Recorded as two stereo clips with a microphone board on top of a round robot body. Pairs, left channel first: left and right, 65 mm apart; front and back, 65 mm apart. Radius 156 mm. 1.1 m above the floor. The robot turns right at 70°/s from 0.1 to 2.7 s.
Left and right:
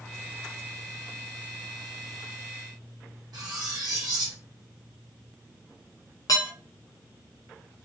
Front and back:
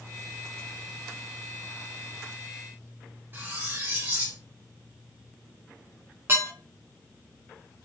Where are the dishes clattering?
125° left, 0.6 m.